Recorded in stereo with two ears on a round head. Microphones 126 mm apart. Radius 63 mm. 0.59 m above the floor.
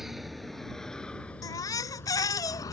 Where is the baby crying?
25° left (ahead or behind).